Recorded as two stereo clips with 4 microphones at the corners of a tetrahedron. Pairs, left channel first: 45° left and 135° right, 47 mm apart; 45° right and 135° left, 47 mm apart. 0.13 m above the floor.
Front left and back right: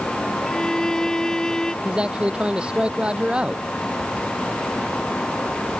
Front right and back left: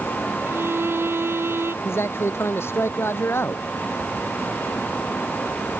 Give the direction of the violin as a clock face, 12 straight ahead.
8 o'clock.